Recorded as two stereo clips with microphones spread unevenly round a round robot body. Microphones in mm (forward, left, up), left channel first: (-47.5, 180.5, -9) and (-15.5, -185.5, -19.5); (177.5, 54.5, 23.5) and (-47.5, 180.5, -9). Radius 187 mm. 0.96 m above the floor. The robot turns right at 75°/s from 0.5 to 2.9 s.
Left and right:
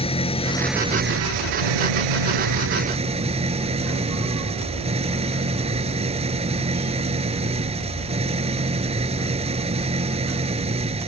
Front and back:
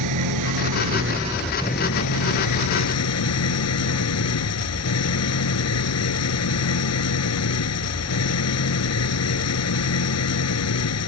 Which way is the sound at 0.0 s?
170° left.